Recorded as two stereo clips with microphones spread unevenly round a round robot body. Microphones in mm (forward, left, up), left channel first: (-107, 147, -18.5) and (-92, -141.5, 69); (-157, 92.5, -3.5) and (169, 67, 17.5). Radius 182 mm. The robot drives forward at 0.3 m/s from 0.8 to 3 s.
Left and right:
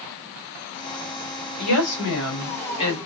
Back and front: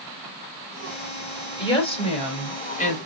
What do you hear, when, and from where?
1.6 s a woman speaking: 100° left, 3 m; by 3.0 s 110° left, 3 m